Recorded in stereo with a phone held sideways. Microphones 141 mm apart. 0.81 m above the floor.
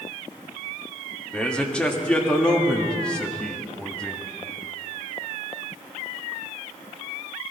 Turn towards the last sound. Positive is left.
turn(degrees=5)  # may be behind; listen again after turning